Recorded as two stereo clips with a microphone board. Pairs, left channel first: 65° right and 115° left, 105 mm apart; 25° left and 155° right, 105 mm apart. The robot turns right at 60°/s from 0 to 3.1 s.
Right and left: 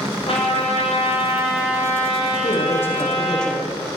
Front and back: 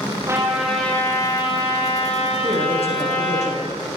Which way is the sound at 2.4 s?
25° right.